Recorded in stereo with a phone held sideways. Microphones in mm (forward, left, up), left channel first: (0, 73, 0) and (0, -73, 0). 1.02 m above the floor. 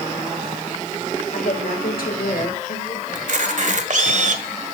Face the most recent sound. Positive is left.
turn(degrees=-60)  # may be behind; listen again after turning